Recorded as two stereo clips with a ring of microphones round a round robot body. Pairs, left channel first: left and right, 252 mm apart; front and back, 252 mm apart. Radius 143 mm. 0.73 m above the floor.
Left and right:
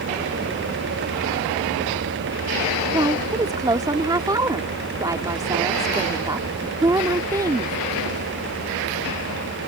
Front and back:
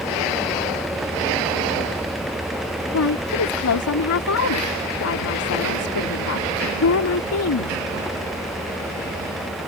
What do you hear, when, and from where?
2.9 s a woman speaking: 15° right